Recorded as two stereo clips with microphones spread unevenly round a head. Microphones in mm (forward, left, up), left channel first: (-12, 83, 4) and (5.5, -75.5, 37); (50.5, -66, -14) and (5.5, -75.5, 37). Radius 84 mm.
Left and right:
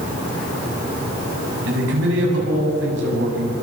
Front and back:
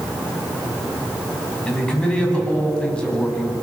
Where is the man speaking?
65° right, 8.5 m.